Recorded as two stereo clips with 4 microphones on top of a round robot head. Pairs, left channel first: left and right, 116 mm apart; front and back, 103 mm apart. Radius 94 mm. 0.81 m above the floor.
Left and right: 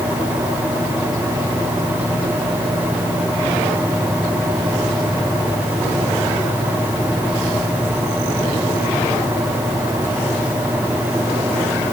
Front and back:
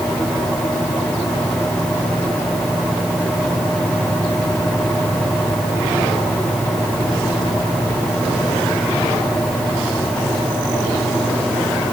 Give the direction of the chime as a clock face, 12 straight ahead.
I don't hear a chime.